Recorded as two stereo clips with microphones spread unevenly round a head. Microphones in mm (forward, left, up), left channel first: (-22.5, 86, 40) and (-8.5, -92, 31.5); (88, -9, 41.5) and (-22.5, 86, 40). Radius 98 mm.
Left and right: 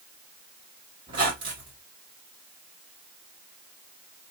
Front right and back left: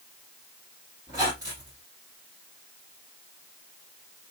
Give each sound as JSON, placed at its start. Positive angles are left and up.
{"t": 1.1, "sound": "a squeak", "azimuth_deg": -150, "distance_m": 1.6}